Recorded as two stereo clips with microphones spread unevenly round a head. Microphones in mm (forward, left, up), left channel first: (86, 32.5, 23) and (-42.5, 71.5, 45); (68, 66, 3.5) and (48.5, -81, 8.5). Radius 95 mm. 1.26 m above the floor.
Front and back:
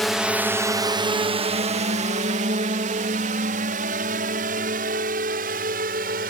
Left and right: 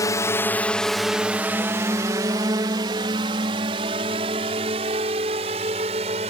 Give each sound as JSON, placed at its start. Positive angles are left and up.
{"t": 0.0, "sound": "a drone", "azimuth_deg": 55}